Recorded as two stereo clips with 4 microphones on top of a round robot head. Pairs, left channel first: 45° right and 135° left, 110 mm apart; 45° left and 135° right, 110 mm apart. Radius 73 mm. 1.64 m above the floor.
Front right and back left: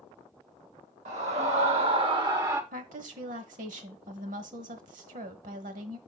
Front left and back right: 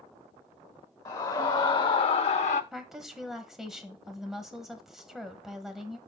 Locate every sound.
1.1 s a scream: 105° left, 1.4 m; by 2.6 s 65° left, 0.8 m
2.7 s a woman speaking: 140° left, 1.2 m